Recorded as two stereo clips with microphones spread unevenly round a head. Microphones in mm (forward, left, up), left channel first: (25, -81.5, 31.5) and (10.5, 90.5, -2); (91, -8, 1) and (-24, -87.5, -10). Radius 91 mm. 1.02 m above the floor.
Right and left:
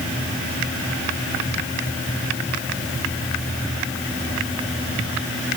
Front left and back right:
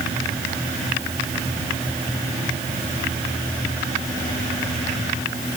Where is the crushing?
No crushing in this recording.